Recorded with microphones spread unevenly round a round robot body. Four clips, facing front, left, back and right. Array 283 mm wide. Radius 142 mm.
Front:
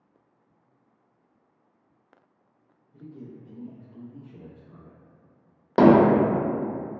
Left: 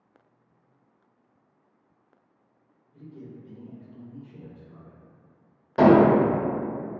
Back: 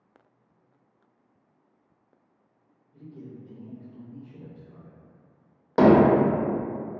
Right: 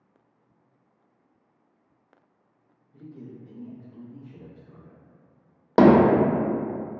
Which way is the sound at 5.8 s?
75° right.